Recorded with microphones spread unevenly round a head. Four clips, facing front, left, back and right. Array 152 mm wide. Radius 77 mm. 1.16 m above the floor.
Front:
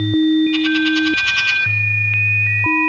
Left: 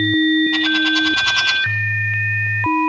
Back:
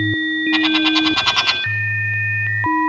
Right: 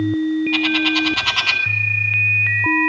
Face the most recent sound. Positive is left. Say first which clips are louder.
# left 1 dB, front 1 dB
turn(degrees=-170)